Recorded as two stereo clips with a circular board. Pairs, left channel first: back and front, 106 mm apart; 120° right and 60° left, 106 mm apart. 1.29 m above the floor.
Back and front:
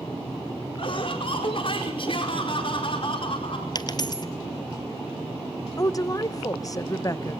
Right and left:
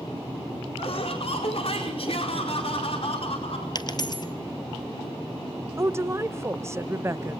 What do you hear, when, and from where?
0.8 s laughter: 145° right, 4.5 m
3.8 s a dropped coin: 150° right, 1.9 m
5.8 s a woman speaking: 125° left, 0.9 m